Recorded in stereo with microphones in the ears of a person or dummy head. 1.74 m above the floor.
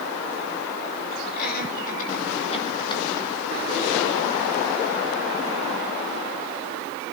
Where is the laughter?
50° left (ahead or behind), 5 m; by 3.3 s 15° left (ahead or behind), 4.5 m.